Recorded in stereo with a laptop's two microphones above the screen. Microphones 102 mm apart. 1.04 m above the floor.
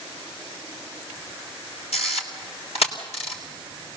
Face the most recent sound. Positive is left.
turn(degrees=80)